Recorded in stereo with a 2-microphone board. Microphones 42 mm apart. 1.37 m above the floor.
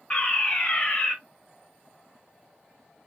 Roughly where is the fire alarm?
Left.